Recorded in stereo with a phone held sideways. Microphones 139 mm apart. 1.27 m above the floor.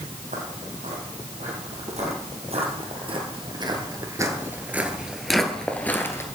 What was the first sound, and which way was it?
Footsteps, 60° right (ahead or behind).